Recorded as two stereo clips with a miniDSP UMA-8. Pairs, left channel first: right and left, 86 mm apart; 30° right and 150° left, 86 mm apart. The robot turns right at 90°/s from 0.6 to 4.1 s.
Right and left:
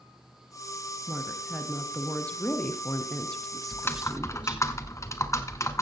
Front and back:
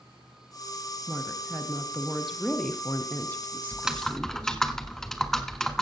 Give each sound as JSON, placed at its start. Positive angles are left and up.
{"t": 1.1, "sound": "a woman speaking", "azimuth_deg": 120, "distance_m": 1.0}
{"t": 3.7, "sound": "typing on a keyboard", "azimuth_deg": -150, "distance_m": 1.0}